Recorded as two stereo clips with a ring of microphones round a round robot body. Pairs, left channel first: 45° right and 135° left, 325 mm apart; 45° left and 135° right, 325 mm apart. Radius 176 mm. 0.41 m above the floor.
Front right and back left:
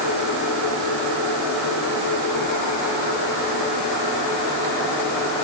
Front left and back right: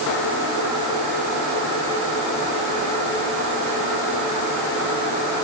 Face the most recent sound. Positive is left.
No sound to turn to.